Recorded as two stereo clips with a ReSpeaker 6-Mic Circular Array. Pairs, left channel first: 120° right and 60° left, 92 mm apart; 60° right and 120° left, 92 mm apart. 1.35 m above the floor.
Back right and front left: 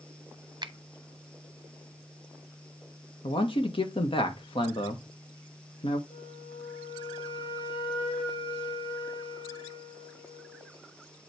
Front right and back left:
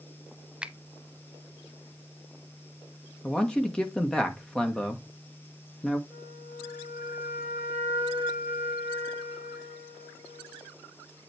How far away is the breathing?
I don't hear breathing.